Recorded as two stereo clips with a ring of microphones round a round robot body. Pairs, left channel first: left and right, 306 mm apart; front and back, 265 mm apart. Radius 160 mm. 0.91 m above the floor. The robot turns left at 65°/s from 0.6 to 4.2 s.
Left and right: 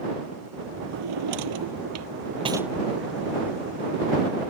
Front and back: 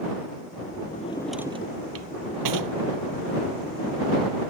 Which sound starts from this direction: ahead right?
A drawer, at 0.9 s.